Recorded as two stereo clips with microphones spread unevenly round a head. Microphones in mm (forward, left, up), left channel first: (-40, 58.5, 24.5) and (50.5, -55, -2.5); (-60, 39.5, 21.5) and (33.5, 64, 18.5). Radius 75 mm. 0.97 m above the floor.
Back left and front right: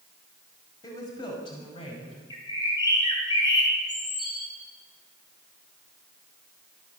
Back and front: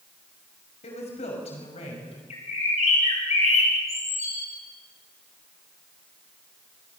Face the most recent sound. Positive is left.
turn(degrees=-170)